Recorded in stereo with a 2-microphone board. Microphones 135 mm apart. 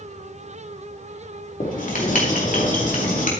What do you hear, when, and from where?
1.6 s writing: 75° left (ahead or behind), 3 m